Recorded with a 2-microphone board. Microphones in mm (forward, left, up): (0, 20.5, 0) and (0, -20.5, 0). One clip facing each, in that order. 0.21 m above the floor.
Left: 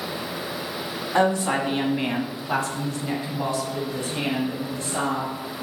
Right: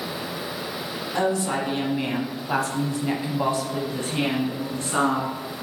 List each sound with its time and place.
1.1 s a woman speaking: 40° left (ahead or behind), 1.5 m; by 5.3 s 60° right (ahead or behind), 2 m